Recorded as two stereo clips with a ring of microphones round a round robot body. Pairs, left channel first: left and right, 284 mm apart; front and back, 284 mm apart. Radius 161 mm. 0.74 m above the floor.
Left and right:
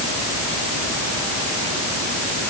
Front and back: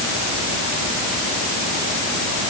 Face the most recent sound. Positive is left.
No sound to turn to.